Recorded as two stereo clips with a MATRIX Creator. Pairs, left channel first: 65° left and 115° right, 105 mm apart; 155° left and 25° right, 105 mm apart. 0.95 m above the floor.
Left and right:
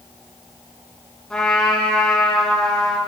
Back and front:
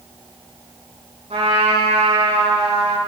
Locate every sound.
1.3 s a trumpet: 15° right, 4.5 m